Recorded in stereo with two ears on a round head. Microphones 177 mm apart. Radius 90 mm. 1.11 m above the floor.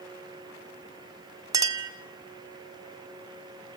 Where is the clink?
15° right (ahead or behind), 0.9 m.